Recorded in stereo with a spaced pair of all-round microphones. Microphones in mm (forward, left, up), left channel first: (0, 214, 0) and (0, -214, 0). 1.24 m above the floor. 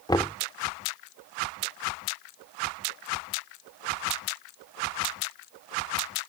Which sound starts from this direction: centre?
Knocking, at 0.1 s.